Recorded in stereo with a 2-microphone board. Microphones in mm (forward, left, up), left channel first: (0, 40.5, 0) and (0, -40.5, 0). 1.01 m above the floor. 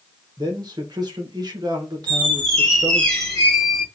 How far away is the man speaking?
About 1.0 m.